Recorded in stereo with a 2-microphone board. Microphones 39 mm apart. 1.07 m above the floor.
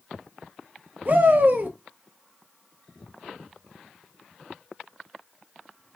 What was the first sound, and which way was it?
A shout, 50° right (ahead or behind).